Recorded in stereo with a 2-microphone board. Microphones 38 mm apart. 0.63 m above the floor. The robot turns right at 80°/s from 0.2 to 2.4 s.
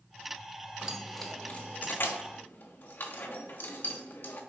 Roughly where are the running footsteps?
No running footsteps in this recording.